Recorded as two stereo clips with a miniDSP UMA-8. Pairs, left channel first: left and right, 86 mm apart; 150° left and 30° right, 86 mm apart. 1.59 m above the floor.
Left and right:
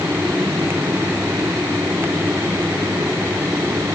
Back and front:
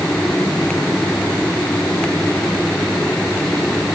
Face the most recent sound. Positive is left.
No sound to turn to.